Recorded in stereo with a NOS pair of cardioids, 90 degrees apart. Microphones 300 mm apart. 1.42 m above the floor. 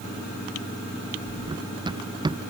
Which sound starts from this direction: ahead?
Running footsteps, at 1.5 s.